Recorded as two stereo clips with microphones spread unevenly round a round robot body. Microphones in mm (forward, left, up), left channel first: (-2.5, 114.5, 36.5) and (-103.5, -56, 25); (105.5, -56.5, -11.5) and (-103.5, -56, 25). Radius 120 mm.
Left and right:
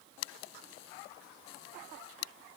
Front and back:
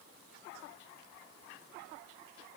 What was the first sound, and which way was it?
Only background noise.